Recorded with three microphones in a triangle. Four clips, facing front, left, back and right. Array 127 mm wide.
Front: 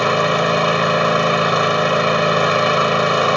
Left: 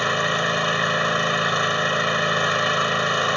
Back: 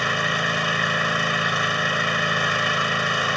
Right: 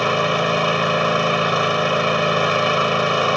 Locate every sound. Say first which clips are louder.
0.0 s an engine running: right 4 dB, front 8 dB; 25° right